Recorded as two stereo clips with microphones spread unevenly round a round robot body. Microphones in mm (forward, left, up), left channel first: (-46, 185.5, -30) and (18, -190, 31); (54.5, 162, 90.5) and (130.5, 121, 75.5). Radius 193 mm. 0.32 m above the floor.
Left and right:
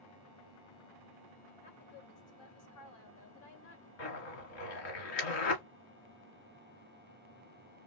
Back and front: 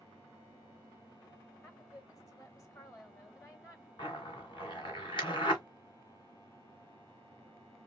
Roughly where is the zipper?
Behind left.